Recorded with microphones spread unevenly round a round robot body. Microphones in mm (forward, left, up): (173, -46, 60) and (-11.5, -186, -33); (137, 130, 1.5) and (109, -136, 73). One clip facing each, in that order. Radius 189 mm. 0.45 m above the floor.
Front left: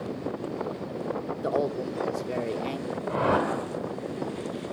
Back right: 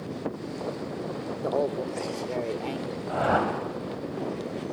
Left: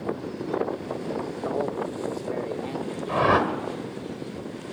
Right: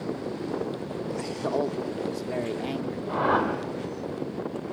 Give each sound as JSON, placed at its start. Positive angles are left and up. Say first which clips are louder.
{"t": 1.4, "sound": "a man speaking", "louder": "back right 1 dB, right 2 dB", "azimuth_deg": -55, "distance_m": 1.0}
{"t": 3.1, "sound": "a whoosh", "louder": "front left 1 dB, left 3 dB", "azimuth_deg": 115, "distance_m": 1.9}